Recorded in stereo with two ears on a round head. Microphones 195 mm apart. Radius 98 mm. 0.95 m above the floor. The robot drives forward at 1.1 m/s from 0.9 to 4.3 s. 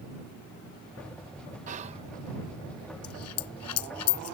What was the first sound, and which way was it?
Whispering, 35° right (ahead or behind).